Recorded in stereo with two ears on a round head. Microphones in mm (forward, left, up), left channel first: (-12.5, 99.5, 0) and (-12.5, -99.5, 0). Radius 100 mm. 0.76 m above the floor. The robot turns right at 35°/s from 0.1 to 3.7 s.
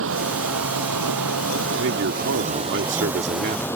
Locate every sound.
0.0 s running water: 115° right; by 3.8 s 10° left
1.8 s a man speaking: 105° right; by 3.7 s 40° right